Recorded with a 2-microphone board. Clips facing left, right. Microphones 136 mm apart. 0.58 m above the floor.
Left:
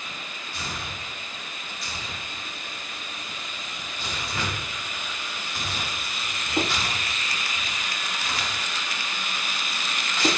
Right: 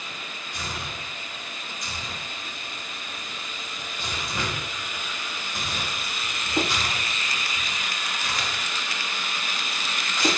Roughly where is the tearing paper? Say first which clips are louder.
Right 1 dB; centre.